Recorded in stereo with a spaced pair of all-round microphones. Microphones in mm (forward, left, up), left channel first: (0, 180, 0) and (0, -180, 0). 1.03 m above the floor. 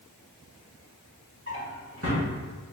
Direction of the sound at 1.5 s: 40° right (ahead or behind).